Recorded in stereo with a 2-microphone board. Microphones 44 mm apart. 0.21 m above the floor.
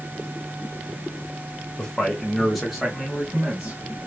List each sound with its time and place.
1.8 s a man speaking: 15° left (ahead or behind), 1.5 m; by 4.1 s 20° right (ahead or behind), 2 m